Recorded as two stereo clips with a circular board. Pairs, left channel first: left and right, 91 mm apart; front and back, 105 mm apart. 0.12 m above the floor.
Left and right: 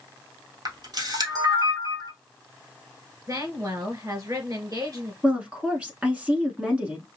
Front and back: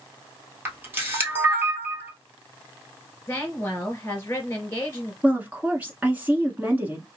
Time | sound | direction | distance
0.7 | a camera shutter | 115° right | 1.2 m
3.3 | a woman speaking | 55° right | 2.5 m
5.2 | a woman speaking | 135° right | 1.1 m